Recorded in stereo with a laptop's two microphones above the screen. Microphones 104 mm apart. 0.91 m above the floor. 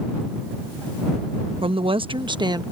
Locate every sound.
1.6 s a woman speaking: 60° right (ahead or behind); by 2.6 s 40° right (ahead or behind)